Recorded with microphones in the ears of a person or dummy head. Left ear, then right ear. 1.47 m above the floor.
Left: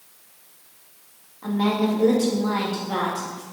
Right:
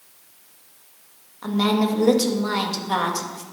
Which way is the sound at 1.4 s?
80° right.